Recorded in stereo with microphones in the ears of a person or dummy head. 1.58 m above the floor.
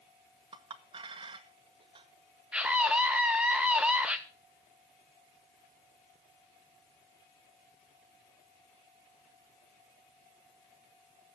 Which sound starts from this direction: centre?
A scream, at 2.5 s.